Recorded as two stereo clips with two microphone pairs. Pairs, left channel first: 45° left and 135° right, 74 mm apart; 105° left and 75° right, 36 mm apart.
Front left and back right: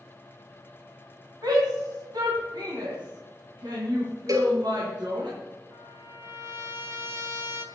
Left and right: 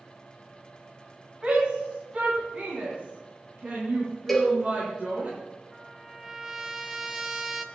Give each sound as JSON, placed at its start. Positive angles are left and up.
{"t": 1.4, "sound": "a shout", "azimuth_deg": -140, "distance_m": 3.0}
{"t": 4.3, "sound": "a cowbell", "azimuth_deg": -175, "distance_m": 2.5}
{"t": 5.7, "sound": "a trumpet", "azimuth_deg": -145, "distance_m": 1.6}